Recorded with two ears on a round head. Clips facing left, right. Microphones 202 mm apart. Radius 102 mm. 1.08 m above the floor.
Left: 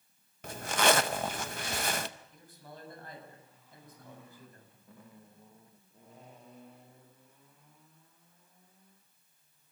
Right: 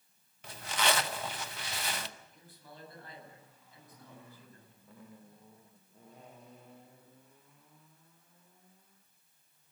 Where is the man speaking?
45° left (ahead or behind), 8.5 m.